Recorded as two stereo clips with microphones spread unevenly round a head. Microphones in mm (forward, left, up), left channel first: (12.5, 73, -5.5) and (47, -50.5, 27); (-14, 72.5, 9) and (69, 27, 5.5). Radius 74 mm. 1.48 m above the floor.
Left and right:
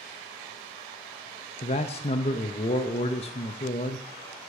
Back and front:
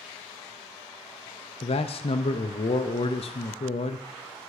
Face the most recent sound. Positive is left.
turn(degrees=140)